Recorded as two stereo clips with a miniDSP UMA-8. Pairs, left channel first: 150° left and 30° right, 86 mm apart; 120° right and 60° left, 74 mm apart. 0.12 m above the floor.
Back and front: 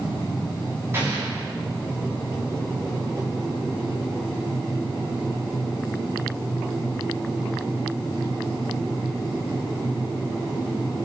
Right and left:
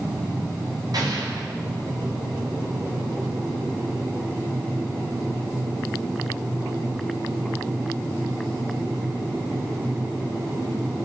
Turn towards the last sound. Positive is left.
turn(degrees=30)